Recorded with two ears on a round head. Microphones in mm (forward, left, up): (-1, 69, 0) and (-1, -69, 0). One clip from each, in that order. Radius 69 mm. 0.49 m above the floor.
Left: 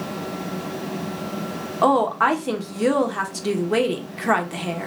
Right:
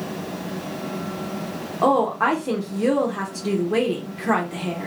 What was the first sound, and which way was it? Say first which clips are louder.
A woman speaking: left 1 dB; 35° left (ahead or behind).